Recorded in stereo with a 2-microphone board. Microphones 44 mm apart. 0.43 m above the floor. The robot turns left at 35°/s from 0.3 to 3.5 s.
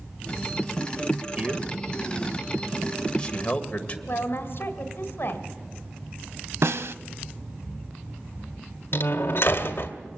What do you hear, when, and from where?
1.4 s a man speaking: 30° right (ahead or behind), 1.7 m; by 4.0 s 30° left (ahead or behind), 1.7 m
4.1 s a woman speaking: 60° left (ahead or behind), 1.7 m
6.6 s a snare drum: 75° right (ahead or behind), 0.5 m
8.9 s a door slam: 60° left (ahead or behind), 1.4 m